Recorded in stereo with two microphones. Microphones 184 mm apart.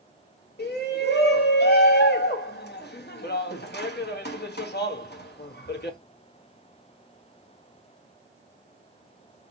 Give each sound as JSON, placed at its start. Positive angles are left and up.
{"t": 0.6, "sound": "a shout", "side_deg": 60, "distance_m": 1.4}